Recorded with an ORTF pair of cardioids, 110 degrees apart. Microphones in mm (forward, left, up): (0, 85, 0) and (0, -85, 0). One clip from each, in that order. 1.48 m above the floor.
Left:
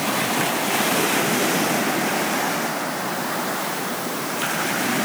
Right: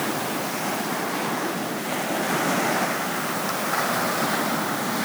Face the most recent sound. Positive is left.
No sound to turn to.